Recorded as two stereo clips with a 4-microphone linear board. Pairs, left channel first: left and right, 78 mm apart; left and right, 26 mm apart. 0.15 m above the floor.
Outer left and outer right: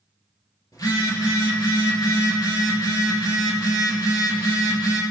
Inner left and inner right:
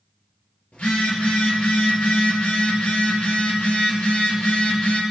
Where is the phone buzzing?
50° left (ahead or behind), 2.5 m.